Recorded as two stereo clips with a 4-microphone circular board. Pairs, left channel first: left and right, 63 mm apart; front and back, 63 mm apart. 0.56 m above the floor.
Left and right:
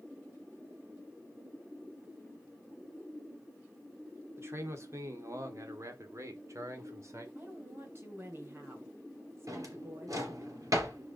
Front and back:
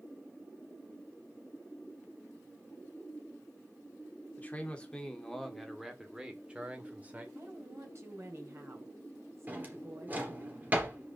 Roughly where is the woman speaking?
Behind right.